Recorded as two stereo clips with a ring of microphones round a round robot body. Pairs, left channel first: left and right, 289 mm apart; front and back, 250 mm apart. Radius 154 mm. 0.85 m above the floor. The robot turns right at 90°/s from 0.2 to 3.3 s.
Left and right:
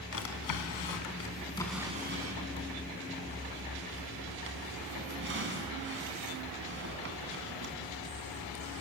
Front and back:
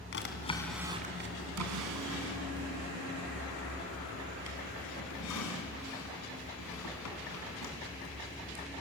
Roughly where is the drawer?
Ahead left.